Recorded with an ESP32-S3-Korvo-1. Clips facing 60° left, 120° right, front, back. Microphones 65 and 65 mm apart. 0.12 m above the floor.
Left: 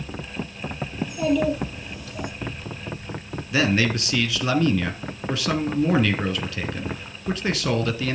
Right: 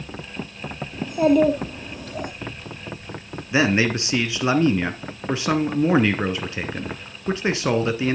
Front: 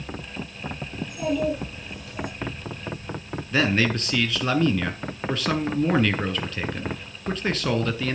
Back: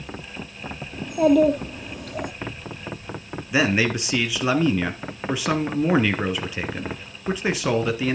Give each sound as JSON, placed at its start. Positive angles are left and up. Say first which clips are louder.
{"t": 1.0, "sound": "a child speaking", "louder": "right 5 dB, back 9 dB", "azimuth_deg": -160, "distance_m": 3.0}
{"t": 3.5, "sound": "a man speaking", "louder": "right 2 dB, back 2 dB", "azimuth_deg": -120, "distance_m": 1.5}